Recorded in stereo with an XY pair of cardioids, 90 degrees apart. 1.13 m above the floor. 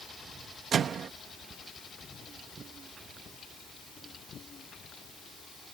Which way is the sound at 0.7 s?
65° right.